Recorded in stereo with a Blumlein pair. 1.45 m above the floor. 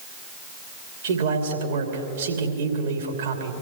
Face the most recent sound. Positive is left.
turn(degrees=-60)